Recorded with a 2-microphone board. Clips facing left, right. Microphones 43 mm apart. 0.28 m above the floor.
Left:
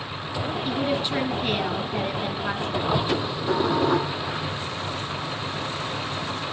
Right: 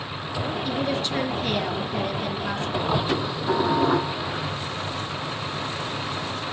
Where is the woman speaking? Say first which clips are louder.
Left 2 dB; 15° left (ahead or behind), 2.5 m.